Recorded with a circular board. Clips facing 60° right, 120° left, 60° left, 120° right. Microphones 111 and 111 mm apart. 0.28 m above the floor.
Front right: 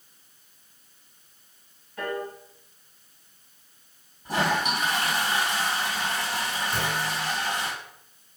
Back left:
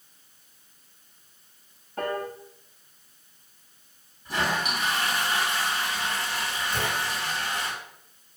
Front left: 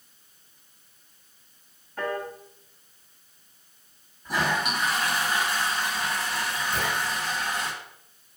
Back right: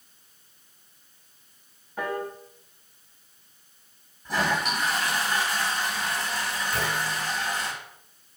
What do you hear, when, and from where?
2.0 s a piano: 160° left, 0.6 m
4.2 s a toilet flushing: 20° right, 1.7 m
6.7 s a clunk: 10° right, 2 m